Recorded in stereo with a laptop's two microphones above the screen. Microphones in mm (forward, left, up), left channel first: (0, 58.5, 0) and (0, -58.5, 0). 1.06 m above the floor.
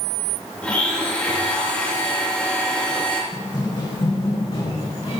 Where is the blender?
10° left (ahead or behind), 2 m.